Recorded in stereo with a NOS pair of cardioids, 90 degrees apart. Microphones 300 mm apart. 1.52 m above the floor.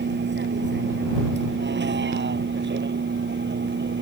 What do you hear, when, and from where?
0.0 s a vehicle: 35° right